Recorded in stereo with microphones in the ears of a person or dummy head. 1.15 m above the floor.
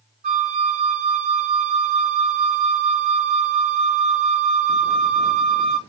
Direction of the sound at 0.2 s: 40° right (ahead or behind).